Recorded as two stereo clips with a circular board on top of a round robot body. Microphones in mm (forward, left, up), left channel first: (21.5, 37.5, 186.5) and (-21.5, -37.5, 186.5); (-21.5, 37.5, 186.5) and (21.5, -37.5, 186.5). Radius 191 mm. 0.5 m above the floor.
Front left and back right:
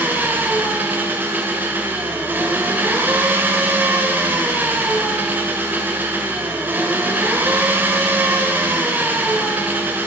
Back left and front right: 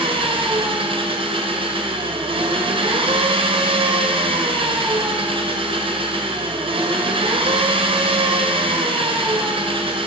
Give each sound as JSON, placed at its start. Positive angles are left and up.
{"t": 0.0, "sound": "an engine running", "azimuth_deg": -50, "distance_m": 1.6}